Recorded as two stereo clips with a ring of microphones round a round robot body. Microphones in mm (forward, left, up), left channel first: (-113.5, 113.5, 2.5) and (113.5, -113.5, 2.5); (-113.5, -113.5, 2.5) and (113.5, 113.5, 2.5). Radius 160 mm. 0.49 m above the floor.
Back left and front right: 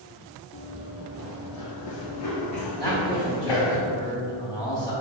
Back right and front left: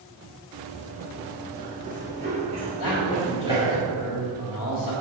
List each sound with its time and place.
0.5 s running footsteps: 80° left, 1.1 m; by 3.8 s 125° left, 2.5 m
2.8 s a man speaking: 140° right, 1.9 m